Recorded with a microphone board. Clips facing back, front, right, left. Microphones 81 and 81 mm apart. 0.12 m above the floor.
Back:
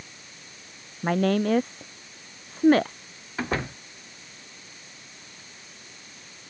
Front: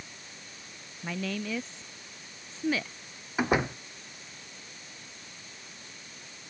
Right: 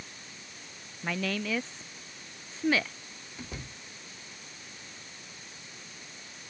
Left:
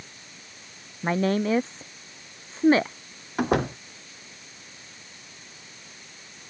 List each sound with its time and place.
1.0 s a woman speaking: 145° left
3.4 s a door slam: 75° left